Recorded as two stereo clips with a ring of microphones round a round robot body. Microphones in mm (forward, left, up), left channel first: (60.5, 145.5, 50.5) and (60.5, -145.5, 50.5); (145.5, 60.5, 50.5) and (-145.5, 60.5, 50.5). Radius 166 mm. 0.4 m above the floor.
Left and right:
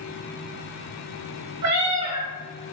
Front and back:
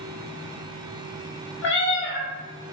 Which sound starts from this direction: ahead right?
A cat meowing, at 1.6 s.